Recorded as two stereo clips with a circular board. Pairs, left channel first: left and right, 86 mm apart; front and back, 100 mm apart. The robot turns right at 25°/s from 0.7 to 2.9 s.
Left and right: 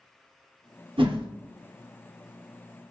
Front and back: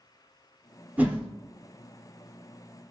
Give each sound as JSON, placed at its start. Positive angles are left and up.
{"t": 1.0, "sound": "a whoosh", "azimuth_deg": -105, "distance_m": 0.8}